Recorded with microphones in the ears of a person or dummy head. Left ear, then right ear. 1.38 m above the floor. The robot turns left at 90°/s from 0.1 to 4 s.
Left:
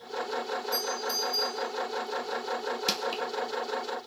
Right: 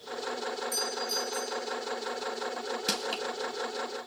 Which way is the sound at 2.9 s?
30° left (ahead or behind).